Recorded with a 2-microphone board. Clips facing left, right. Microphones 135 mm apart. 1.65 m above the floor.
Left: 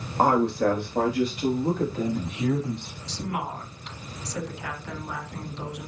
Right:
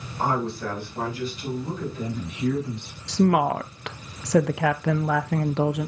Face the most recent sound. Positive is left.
turn(degrees=-90)